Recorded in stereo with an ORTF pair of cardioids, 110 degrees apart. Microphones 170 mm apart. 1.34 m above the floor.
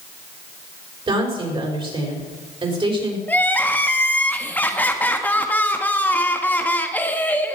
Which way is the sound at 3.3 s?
10° left.